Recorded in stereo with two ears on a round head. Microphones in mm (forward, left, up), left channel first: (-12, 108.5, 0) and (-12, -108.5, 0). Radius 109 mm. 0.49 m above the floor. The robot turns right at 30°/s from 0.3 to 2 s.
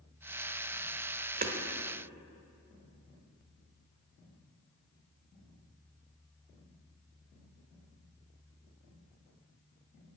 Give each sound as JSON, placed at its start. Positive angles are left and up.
{"t": 1.4, "sound": "hammering", "side_deg": -40, "distance_m": 1.3}